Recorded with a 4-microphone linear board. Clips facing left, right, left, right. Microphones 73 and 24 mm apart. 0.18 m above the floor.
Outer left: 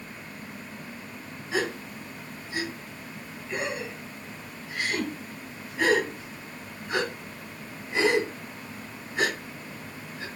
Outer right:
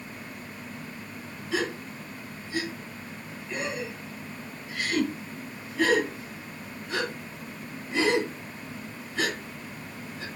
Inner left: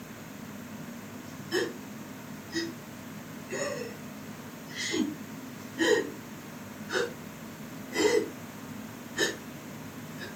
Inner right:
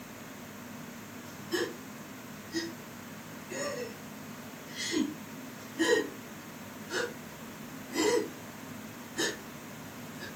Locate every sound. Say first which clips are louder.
1.5 s a gasp: outer left 1 dB, inner left 3 dB; 20° left (ahead or behind), 1.3 m